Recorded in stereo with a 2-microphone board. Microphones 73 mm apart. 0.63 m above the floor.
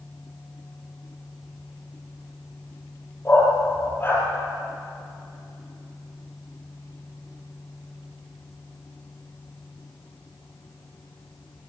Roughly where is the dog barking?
Left.